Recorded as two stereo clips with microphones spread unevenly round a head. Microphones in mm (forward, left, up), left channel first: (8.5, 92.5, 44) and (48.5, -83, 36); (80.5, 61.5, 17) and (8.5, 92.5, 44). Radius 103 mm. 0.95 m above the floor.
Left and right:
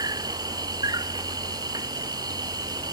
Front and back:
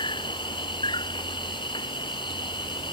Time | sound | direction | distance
0.0 | an insect | 5° right | ?